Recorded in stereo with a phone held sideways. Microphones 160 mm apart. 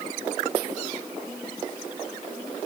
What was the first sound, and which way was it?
Only background noise.